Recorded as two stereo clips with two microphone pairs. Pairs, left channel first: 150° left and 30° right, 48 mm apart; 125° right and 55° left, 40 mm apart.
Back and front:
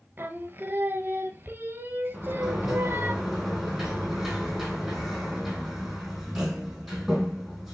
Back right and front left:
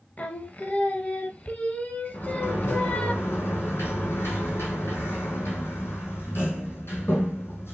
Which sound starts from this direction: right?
Singing, at 0.2 s.